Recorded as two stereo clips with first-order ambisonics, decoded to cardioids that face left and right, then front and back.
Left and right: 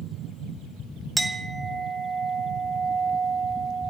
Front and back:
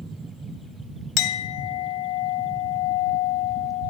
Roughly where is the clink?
Ahead.